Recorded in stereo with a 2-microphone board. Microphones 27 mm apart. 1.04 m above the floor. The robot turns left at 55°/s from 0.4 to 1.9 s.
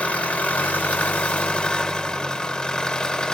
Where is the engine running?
115° left, 1.7 m; by 3.4 s 30° left, 1.7 m.